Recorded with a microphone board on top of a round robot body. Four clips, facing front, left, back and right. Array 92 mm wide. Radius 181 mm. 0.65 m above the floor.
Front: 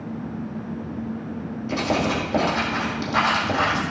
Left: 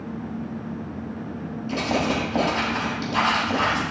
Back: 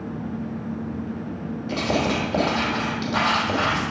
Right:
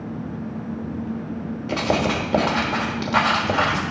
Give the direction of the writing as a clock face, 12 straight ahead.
3 o'clock.